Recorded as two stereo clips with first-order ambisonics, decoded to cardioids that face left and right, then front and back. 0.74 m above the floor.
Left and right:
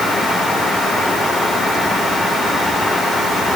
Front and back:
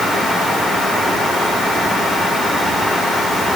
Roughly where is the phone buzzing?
No phone buzzing in this recording.